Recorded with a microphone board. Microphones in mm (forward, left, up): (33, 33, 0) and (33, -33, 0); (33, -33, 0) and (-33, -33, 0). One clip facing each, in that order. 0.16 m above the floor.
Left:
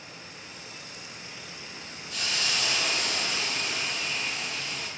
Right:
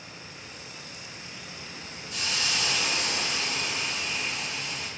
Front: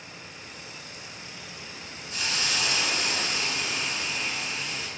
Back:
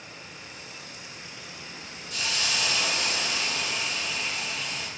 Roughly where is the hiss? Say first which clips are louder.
Even, even; ahead right.